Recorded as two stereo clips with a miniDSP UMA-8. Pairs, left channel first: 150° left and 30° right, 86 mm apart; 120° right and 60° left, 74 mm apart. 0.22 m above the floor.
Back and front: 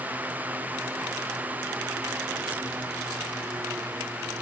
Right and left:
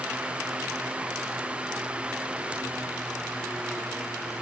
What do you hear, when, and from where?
Only background noise.